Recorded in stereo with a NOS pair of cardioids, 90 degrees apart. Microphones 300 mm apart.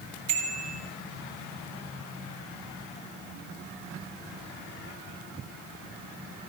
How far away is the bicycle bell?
About 3 m.